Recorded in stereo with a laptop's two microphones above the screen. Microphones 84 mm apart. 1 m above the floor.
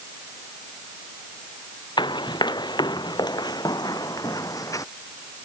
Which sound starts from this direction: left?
Running footsteps, at 2.0 s.